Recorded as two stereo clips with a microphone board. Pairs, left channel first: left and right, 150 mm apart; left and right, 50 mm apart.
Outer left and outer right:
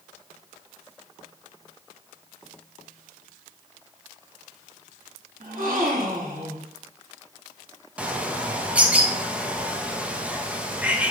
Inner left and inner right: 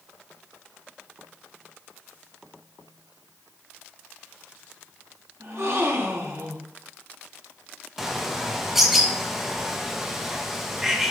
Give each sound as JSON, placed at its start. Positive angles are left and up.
{"t": 5.4, "sound": "a gasp", "side_deg": -70, "distance_m": 2.5}
{"t": 8.0, "sound": "a bird", "side_deg": -10, "distance_m": 1.0}